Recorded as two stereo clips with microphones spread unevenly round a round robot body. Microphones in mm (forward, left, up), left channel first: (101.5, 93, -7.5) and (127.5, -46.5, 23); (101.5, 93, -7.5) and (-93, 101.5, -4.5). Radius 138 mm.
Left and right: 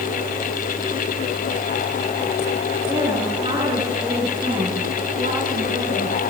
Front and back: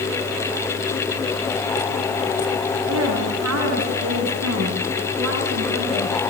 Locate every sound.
2.9 s a woman speaking: 160° right, 10 m; by 6.3 s 140° right, 9.5 m